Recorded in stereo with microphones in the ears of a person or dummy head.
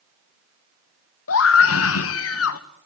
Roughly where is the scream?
Left.